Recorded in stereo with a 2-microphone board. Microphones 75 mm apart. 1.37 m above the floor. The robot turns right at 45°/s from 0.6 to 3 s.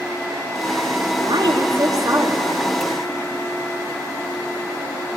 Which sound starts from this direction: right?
A woman speaking, at 1.2 s.